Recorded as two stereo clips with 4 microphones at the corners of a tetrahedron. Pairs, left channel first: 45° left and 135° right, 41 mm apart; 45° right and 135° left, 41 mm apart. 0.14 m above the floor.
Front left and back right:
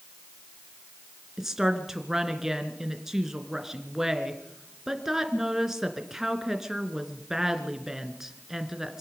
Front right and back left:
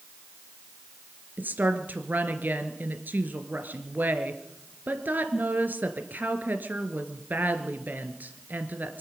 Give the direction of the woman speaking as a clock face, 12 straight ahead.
7 o'clock.